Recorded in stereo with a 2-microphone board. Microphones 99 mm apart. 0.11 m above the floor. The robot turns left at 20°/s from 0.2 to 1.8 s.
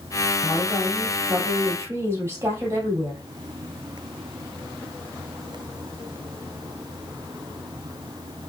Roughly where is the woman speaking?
Centre.